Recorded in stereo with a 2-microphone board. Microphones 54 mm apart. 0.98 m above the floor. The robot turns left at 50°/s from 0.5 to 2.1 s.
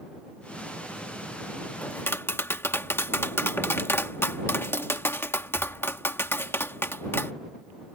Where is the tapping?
30° left (ahead or behind); by 7.3 s 45° left (ahead or behind).